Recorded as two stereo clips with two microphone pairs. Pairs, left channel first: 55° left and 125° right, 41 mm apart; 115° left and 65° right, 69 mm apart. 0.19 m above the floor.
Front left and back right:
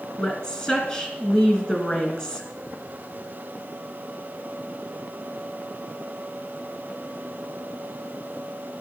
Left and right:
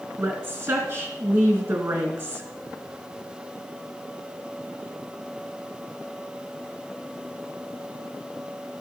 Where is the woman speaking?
10° right, 2.5 m.